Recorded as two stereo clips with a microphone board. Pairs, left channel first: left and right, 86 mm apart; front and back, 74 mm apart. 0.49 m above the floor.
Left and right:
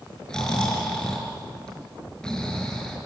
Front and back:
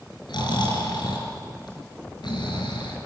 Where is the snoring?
10° left, 4.5 m.